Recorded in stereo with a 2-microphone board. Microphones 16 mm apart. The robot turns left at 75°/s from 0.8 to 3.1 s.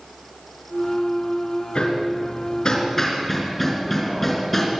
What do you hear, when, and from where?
1.8 s hammering: 65° left (ahead or behind), 4 m; by 4.7 s 10° left (ahead or behind), 4 m